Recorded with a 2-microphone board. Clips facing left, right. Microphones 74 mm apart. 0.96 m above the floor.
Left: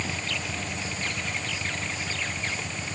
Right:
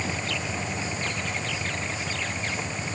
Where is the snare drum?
I don't hear a snare drum.